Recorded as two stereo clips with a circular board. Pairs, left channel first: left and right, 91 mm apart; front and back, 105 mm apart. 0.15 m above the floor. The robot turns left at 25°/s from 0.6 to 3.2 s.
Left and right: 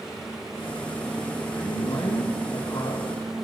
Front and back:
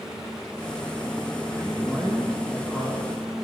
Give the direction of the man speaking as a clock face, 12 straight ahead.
9 o'clock.